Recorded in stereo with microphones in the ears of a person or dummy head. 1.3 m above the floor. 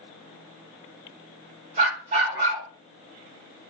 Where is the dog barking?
45° right (ahead or behind), 2 m.